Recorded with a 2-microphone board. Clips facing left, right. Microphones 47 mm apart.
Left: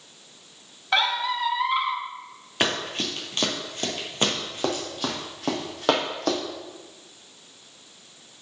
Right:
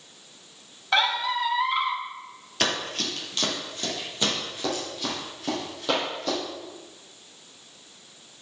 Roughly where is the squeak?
Centre.